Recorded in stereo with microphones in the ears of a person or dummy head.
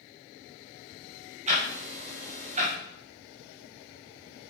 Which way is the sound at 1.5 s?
30° right (ahead or behind).